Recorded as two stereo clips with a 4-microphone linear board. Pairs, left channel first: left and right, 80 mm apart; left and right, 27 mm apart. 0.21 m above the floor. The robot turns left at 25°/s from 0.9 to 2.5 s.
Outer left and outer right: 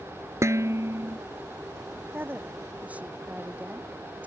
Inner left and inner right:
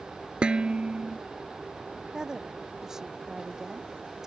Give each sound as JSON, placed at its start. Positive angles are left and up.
{"t": 0.4, "sound": "dishes clattering", "side_deg": -35}
{"t": 2.1, "sound": "a woman speaking", "side_deg": -25}